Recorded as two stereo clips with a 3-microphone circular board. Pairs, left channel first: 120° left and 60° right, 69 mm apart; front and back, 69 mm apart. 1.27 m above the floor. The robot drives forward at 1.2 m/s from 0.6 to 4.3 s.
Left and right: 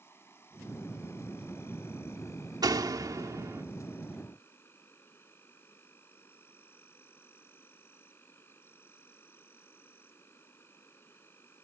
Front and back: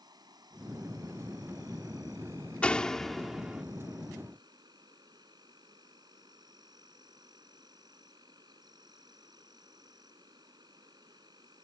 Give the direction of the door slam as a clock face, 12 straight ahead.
2 o'clock.